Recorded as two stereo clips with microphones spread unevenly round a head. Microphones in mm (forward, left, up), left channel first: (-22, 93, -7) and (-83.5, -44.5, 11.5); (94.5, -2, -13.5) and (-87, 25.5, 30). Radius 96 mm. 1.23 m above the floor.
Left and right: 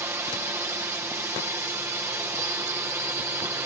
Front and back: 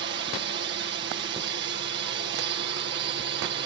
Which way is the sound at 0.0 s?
175° left.